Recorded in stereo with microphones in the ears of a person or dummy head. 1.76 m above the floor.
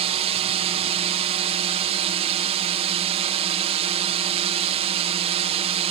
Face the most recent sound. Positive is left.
turn(degrees=-30)  # may be behind; listen again after turning